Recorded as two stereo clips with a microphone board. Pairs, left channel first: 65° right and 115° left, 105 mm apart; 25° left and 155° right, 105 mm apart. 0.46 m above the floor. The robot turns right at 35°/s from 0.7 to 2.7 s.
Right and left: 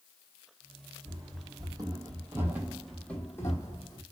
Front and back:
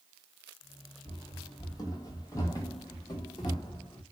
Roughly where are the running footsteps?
Ahead left.